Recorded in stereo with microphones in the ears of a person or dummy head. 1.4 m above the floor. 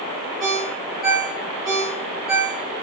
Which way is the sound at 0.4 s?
Centre (ahead or behind).